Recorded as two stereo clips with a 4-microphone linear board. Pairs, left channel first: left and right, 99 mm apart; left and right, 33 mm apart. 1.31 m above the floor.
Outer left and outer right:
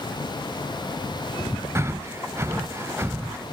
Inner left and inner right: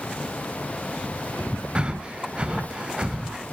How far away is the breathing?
About 0.5 m.